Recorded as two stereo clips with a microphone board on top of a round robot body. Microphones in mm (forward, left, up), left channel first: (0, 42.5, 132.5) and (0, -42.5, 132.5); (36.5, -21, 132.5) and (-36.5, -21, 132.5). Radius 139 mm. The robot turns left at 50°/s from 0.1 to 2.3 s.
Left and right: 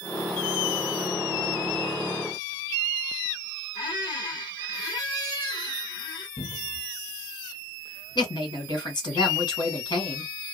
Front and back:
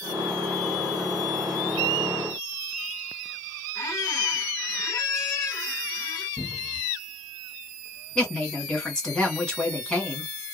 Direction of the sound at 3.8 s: 55° left.